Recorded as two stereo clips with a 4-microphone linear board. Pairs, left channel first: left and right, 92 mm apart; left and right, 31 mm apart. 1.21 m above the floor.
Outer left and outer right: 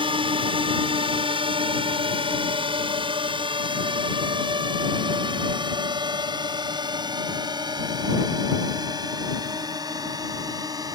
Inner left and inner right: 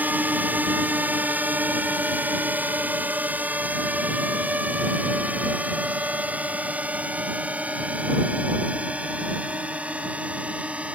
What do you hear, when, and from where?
0.0 s a drone: 75° right (ahead or behind); by 10.9 s 45° right (ahead or behind)